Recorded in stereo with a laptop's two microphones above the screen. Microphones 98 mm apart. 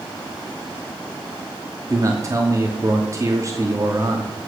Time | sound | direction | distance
1.9 | a man speaking | 30° right (ahead or behind) | 2.5 m